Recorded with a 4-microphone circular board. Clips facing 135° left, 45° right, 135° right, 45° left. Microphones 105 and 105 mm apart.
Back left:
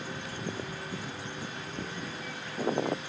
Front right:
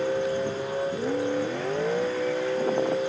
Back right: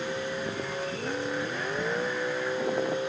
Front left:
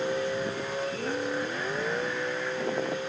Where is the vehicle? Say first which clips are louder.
Front right 13 dB, front left 3 dB; 30° right; by 3.1 s 60° right.